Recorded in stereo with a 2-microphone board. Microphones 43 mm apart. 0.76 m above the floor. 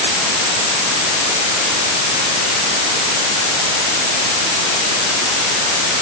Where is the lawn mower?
I don't hear a lawn mower.